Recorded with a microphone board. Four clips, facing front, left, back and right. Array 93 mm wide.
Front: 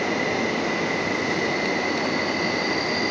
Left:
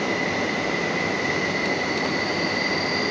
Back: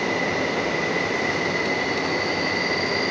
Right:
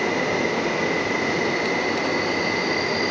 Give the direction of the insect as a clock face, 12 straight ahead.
3 o'clock.